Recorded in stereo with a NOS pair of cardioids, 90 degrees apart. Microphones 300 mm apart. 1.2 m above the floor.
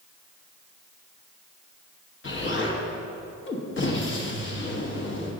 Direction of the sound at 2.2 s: 40° left.